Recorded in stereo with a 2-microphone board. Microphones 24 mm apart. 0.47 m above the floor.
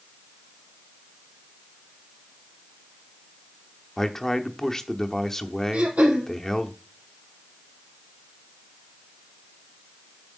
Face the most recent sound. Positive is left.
turn(degrees=-80)